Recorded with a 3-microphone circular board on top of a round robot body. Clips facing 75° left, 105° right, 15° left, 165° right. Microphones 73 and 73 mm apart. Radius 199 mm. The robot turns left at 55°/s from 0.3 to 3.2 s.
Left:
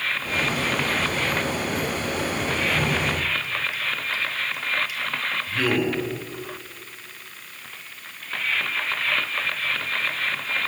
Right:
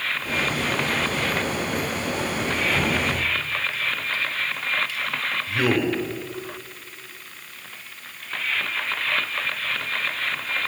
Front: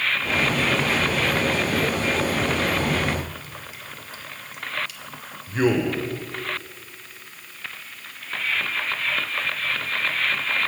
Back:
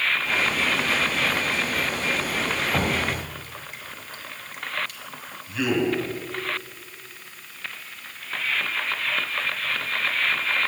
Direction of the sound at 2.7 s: 175° left.